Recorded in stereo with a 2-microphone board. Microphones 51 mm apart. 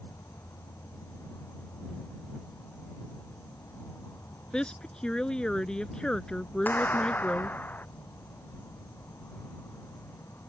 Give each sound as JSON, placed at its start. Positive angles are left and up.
{"t": 0.0, "sound": "an insect", "side_deg": 65}
{"t": 4.5, "sound": "a woman speaking", "side_deg": 15}
{"t": 6.7, "sound": "a clap", "side_deg": 35}